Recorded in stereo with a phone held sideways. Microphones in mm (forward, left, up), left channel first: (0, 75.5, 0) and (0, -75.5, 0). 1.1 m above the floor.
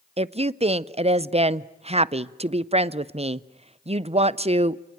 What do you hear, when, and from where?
0.2 s a woman speaking: 40° right (ahead or behind), 0.5 m